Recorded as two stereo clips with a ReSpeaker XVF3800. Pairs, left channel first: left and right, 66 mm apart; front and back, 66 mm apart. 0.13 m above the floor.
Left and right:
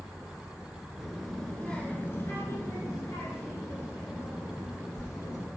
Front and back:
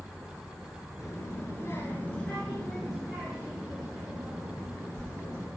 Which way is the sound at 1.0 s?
5° right.